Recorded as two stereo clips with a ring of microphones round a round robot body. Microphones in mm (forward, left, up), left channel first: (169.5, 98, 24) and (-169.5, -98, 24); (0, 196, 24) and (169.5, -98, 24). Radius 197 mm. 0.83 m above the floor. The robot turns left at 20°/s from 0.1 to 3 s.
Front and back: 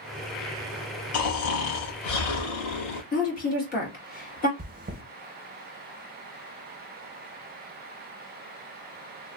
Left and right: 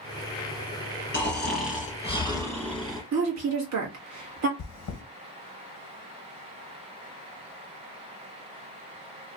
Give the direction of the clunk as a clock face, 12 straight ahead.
No clunk in this recording.